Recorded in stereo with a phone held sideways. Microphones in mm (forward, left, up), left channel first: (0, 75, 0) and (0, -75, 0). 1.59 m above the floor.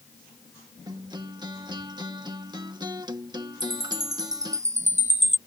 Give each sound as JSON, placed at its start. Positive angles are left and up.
{"t": 0.9, "sound": "a guitar", "side_deg": -25}
{"t": 3.6, "sound": "a chime", "side_deg": -50}